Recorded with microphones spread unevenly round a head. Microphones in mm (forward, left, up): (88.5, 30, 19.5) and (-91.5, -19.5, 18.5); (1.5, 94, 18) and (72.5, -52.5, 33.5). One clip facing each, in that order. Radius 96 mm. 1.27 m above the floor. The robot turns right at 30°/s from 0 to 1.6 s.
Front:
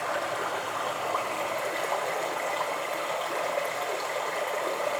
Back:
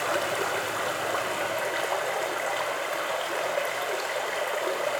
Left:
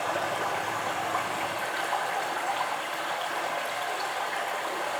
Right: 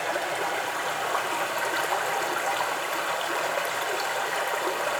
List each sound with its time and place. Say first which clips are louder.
0.0 s running water: back 3 dB, right 1 dB; 130° right, 1.3 m; by 5.0 s 80° right, 1.3 m